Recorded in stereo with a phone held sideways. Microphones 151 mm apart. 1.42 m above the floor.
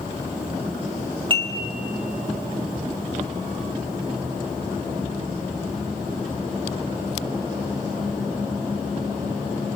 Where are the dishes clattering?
35° right (ahead or behind), 2.5 m.